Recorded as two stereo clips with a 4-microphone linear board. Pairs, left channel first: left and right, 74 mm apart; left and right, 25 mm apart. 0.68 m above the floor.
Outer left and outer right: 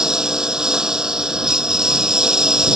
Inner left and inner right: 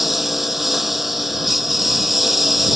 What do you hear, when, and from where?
0.0 s a lawn mower: 10° right (ahead or behind)